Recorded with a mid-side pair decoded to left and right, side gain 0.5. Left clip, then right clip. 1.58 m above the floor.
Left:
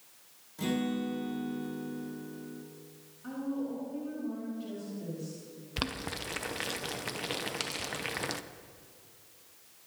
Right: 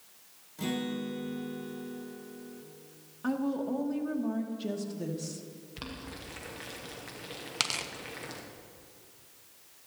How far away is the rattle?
No rattle in this recording.